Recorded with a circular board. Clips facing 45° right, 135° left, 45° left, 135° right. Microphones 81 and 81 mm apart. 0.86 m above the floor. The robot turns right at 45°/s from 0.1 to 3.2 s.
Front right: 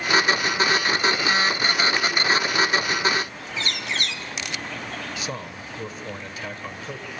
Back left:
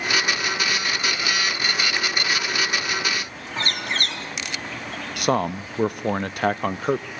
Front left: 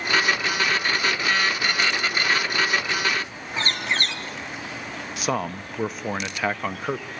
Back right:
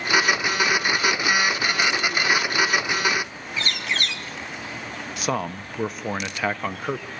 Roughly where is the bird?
Left.